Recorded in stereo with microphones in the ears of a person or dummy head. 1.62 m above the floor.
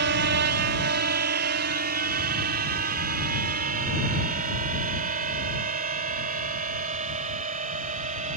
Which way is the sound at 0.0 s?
65° right (ahead or behind).